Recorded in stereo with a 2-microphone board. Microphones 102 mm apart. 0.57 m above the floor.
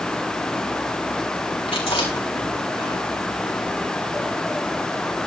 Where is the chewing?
80° left, 5 m.